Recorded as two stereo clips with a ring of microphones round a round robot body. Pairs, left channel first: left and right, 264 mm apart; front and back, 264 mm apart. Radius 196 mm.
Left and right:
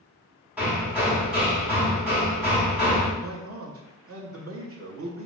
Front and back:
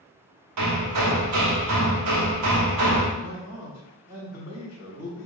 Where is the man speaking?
105° right, 0.9 m.